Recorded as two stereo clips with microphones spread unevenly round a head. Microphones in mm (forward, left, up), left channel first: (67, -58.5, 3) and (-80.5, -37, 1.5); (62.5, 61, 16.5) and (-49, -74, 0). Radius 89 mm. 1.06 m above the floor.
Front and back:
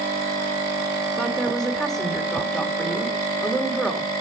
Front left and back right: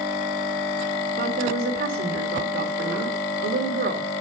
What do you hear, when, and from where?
1.2 s a woman speaking: 95° right, 2.5 m